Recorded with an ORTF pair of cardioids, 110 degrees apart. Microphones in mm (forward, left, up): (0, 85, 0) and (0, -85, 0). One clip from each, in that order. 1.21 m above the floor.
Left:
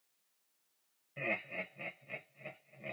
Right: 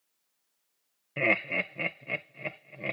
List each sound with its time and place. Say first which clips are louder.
1.2 s laughter: right 11 dB; 70° right, 0.7 m